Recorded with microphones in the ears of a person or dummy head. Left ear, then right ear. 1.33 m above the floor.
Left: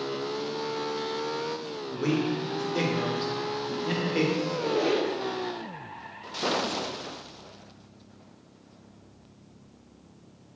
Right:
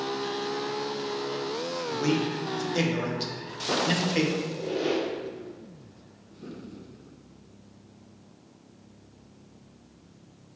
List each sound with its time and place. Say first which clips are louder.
1.9 s a man speaking: left 1 dB; 15° right (ahead or behind), 0.7 m
4.4 s a squeak: left 3 dB; 75° left (ahead or behind), 1.1 m